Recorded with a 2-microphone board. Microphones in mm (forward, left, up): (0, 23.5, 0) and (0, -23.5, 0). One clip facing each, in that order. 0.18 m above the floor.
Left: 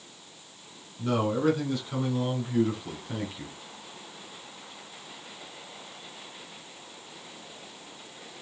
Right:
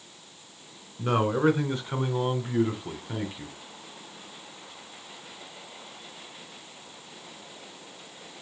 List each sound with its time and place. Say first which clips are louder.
1.0 s a man speaking: right 2 dB; 35° right (ahead or behind), 2 m; by 3.5 s 5° right (ahead or behind), 1.5 m